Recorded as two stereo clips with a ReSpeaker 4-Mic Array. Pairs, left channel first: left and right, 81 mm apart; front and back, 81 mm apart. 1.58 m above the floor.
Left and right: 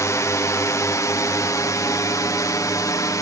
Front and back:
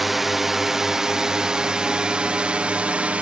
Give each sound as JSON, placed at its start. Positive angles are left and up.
{"t": 0.0, "sound": "a drone", "azimuth_deg": 95}